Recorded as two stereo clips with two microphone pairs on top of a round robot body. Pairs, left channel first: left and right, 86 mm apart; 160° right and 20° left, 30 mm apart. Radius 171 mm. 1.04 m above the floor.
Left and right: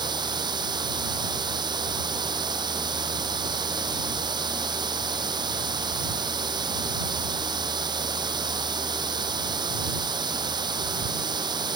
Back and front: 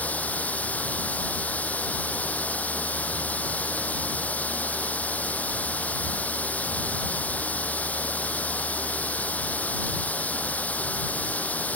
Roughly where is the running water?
Behind right.